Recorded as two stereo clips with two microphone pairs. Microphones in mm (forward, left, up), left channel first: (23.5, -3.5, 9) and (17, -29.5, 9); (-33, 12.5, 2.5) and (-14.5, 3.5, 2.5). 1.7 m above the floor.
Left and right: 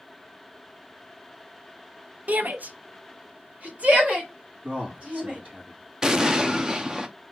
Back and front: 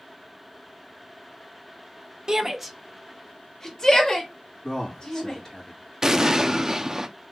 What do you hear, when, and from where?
2.3 s a shout: 90° right, 0.8 m; by 5.4 s 145° right, 3 m
4.6 s a man speaking: 140° right, 2.5 m
6.0 s an explosion: 70° right, 0.6 m